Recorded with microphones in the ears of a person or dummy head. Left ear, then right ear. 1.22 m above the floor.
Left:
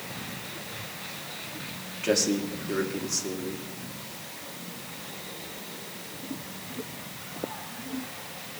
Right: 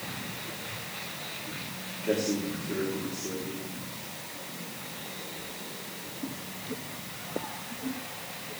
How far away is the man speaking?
About 2.5 m.